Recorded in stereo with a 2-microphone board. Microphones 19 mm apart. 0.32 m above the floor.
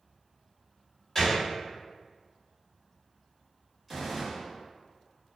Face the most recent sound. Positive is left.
turn(degrees=0)  # may be behind; listen again after turning